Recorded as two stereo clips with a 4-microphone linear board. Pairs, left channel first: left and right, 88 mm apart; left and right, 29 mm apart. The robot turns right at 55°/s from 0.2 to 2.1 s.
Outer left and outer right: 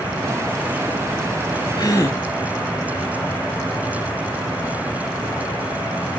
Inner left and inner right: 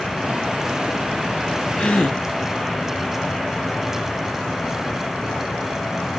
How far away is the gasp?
About 1.1 m.